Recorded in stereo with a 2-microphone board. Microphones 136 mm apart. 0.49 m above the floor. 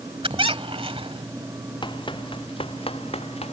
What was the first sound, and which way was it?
A squeak, 45° right (ahead or behind).